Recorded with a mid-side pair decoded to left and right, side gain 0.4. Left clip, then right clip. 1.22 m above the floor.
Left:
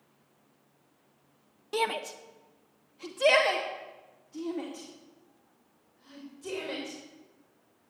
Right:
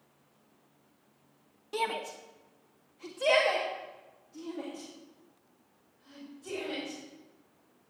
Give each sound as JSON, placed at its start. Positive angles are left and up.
{"t": 1.7, "sound": "a shout", "azimuth_deg": 35, "distance_m": 1.3}